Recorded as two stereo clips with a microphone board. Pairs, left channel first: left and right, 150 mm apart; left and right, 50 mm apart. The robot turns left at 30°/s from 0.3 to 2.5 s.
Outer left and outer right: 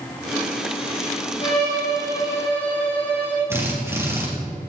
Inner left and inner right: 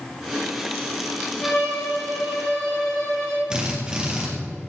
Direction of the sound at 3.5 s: 15° right (ahead or behind).